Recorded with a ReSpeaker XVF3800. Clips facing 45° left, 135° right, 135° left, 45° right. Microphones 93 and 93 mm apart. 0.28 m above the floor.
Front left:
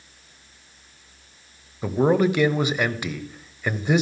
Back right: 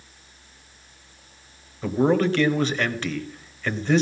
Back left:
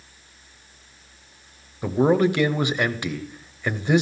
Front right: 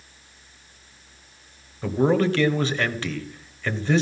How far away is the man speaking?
About 0.9 m.